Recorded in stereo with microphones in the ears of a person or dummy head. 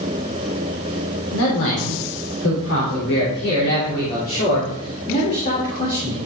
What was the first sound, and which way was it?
A man speaking, 80° left.